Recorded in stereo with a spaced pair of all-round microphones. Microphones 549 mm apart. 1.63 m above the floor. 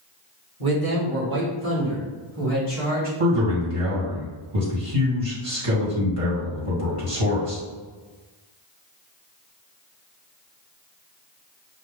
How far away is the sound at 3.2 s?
About 1.8 m.